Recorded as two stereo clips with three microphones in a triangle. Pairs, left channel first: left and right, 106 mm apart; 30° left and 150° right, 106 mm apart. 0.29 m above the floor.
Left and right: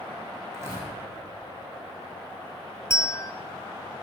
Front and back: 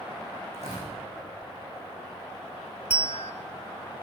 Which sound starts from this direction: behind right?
Tearing paper, at 0.5 s.